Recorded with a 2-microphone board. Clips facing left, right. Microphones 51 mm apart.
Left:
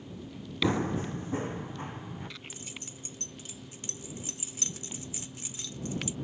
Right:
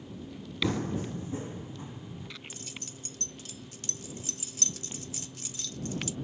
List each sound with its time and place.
0.6 s running footsteps: 25° left (ahead or behind); by 2.3 s 50° left (ahead or behind)
2.5 s keys jangling: 20° left (ahead or behind)